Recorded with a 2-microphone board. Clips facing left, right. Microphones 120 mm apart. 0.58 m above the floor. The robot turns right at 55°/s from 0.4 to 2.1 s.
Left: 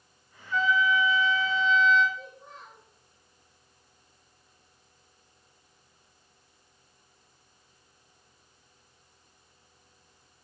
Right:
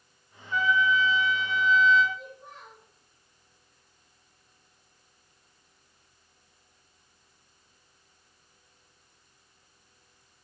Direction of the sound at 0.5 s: 170° right.